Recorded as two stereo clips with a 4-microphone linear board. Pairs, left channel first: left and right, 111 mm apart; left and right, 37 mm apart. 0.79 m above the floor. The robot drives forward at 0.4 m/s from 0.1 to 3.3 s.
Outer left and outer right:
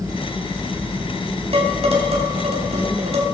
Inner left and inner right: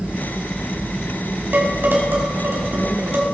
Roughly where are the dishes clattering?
Right.